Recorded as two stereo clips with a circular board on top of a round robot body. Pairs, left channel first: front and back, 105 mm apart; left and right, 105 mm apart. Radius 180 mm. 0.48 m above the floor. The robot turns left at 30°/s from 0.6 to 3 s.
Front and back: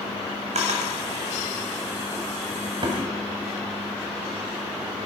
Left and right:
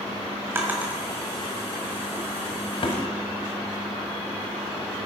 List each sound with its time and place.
0.6 s a drawer: 160° right, 1.5 m; by 5.1 s 130° left, 1.5 m